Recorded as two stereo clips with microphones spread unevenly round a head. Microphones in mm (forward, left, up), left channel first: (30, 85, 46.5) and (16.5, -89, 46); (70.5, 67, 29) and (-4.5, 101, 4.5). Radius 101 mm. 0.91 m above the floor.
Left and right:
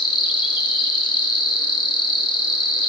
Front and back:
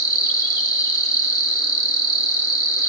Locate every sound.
0.0 s an insect: 30° left, 1.2 m